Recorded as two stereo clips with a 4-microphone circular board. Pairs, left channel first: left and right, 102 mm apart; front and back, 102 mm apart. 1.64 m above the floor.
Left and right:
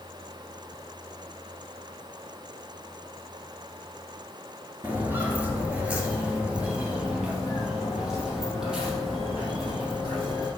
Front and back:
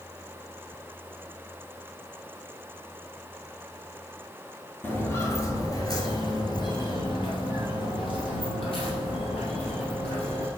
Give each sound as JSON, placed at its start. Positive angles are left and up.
{"t": 4.8, "sound": "footsteps", "azimuth_deg": -45, "distance_m": 1.7}